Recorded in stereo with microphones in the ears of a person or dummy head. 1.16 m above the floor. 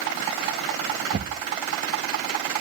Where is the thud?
45° right (ahead or behind).